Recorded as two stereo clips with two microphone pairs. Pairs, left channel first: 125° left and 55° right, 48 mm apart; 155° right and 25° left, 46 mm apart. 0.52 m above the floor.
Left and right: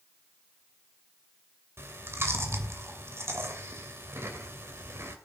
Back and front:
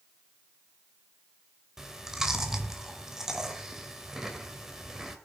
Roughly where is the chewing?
Ahead right.